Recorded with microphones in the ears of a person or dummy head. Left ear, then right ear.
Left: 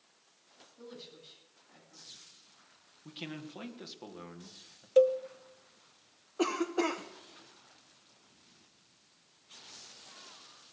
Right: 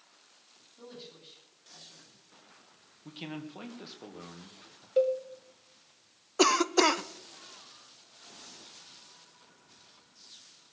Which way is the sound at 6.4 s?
70° right (ahead or behind).